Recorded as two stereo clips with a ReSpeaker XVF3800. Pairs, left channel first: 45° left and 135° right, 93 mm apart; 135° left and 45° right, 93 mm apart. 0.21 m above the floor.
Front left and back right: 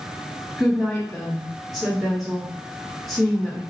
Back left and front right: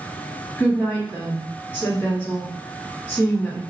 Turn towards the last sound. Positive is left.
turn(degrees=135)